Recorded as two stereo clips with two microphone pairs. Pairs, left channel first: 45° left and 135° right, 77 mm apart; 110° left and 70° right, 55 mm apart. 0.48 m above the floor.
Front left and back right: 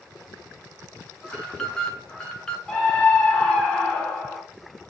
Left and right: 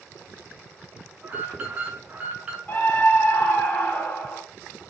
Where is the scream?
130° left, 1.3 m.